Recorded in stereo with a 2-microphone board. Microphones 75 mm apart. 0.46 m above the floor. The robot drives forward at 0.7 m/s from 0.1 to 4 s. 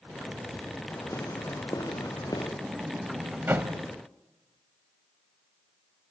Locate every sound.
0.9 s footsteps: 40° left (ahead or behind), 6.5 m; by 2.5 s 60° left (ahead or behind), 4.5 m
2.6 s a sliding door: 20° right (ahead or behind), 1.9 m; by 3.8 s 30° right (ahead or behind), 1.2 m